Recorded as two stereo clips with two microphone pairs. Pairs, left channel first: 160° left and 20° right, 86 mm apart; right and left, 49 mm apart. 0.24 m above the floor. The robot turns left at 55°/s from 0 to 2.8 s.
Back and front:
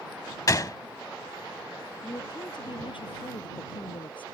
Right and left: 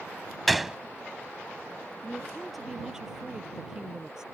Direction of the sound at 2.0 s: 150° right.